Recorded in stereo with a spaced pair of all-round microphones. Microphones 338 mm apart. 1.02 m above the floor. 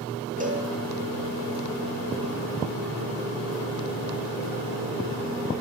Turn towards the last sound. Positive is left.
turn(degrees=-25)  # may be behind; listen again after turning